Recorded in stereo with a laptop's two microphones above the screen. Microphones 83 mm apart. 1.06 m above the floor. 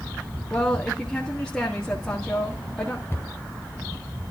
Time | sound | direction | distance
0.5 | a woman speaking | 10° left (ahead or behind) | 1.7 m
3.1 | a cupboard door | 35° left (ahead or behind) | 1.6 m